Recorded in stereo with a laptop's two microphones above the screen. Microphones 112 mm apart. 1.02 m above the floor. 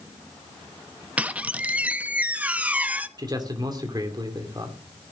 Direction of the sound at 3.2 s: 35° right (ahead or behind).